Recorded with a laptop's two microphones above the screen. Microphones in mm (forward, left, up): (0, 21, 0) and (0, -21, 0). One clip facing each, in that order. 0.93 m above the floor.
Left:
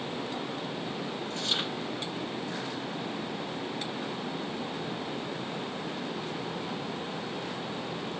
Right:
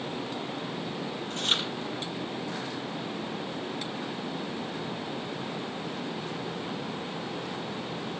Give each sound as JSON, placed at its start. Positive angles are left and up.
{"t": 1.3, "sound": "chewing", "side_deg": -45, "distance_m": 6.5}